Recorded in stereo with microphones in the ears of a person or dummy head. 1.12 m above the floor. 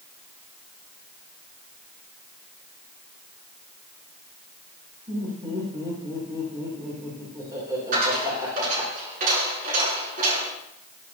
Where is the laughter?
20° right (ahead or behind), 3 m.